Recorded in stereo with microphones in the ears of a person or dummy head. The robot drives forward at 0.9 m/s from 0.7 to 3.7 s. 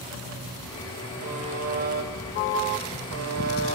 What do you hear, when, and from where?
1.2 s a buzzer: 40° right (ahead or behind), 3 m; by 3.8 s 90° right, 1.8 m